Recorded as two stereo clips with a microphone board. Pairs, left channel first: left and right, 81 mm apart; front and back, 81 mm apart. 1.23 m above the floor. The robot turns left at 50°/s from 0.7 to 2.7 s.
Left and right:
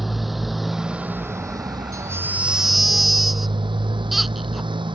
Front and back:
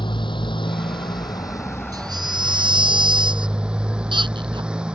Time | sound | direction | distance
0.0 | a motorcycle | straight ahead | ?
1.9 | a baby crying | 140° right | ?